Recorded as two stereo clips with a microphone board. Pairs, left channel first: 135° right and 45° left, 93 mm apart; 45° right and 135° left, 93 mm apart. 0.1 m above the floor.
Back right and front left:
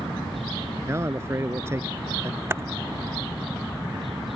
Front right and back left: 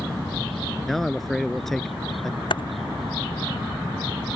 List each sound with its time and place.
0.9 s a man speaking: 40° left
2.5 s typing on a keyboard: 20° right